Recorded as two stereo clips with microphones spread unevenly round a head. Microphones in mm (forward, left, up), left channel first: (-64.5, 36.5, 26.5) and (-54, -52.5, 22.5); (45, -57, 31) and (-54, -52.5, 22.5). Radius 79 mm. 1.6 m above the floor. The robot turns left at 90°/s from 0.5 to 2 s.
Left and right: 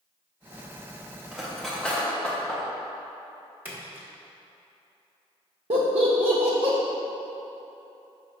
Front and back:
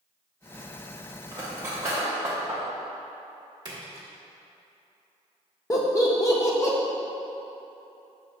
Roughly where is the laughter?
Ahead right.